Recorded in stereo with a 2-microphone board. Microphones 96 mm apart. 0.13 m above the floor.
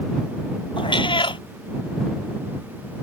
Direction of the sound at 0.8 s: 60° left (ahead or behind).